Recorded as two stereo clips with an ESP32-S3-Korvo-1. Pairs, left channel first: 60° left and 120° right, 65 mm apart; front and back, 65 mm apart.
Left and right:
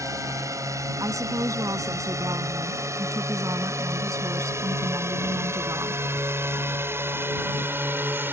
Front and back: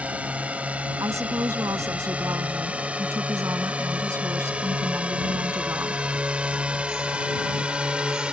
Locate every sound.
0.0 s a drone: 115° right; by 8.3 s 120° right
1.0 s a woman speaking: 145° right